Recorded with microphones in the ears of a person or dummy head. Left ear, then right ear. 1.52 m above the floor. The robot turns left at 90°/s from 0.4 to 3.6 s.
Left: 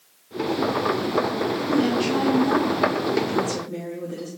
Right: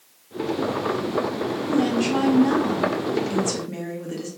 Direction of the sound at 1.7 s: 55° left.